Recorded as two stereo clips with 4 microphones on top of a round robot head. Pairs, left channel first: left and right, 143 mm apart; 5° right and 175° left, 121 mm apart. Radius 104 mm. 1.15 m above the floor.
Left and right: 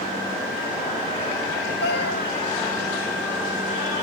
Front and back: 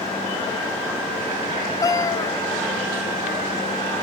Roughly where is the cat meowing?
Ahead left.